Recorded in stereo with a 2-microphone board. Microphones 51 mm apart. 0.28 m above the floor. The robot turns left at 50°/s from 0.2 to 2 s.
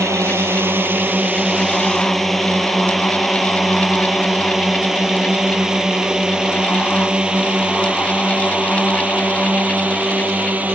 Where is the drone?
70° right (ahead or behind); by 10.8 s 35° right (ahead or behind).